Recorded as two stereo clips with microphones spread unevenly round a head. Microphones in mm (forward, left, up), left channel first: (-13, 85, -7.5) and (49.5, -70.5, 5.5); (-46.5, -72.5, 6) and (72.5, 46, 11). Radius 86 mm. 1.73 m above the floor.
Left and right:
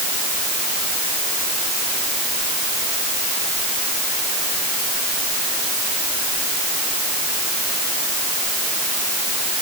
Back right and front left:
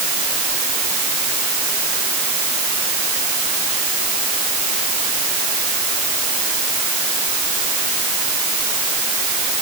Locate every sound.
Only background noise.